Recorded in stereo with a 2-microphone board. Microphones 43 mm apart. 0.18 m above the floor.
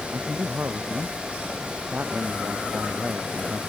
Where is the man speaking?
50° right (ahead or behind).